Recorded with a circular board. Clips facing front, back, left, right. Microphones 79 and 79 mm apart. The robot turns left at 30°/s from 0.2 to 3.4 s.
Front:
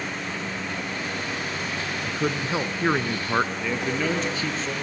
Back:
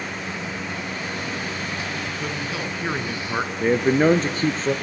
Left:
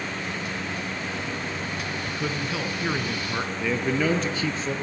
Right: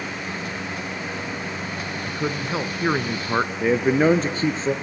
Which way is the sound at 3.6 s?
140° right.